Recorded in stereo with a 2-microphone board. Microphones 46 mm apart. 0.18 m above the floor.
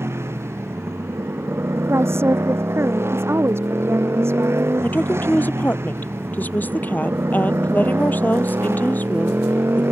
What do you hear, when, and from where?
0.0 s a motorcycle: 65° right (ahead or behind); by 9.9 s 60° right (ahead or behind)
1.9 s a woman speaking: 60° right (ahead or behind)
4.8 s a woman speaking: 40° left (ahead or behind)